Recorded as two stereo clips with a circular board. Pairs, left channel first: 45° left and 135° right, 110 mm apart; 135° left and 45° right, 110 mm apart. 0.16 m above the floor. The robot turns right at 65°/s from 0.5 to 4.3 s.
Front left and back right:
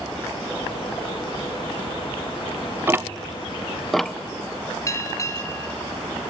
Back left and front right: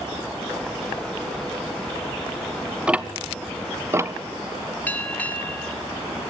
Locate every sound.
2.9 s ticking: 110° right, 0.5 m; by 4.1 s 30° right, 0.5 m
4.9 s a bell: 75° left, 1.0 m